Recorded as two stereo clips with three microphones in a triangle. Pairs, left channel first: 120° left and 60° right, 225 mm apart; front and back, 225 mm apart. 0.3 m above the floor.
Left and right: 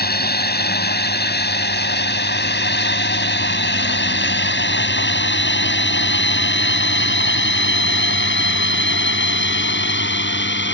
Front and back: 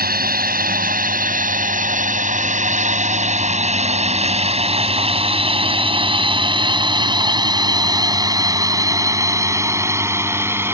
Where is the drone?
145° left; by 10.7 s 100° left.